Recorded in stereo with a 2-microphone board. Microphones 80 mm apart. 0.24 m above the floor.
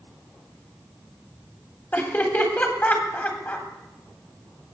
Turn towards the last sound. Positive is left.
turn(degrees=20)  # may be behind; listen again after turning